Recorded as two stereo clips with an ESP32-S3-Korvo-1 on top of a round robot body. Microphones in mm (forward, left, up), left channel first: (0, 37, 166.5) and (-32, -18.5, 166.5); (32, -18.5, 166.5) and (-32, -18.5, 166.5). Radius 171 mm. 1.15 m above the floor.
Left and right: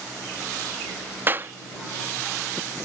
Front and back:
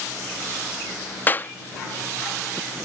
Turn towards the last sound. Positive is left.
turn(degrees=-60)